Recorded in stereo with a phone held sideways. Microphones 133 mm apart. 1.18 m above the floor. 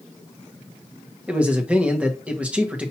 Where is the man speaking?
10° right (ahead or behind), 1.1 m.